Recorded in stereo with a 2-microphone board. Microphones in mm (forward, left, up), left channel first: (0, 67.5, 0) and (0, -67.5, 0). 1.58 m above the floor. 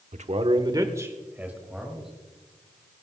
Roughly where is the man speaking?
Right.